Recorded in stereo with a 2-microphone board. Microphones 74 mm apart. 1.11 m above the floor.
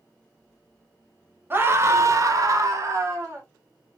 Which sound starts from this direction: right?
A scream, at 1.5 s.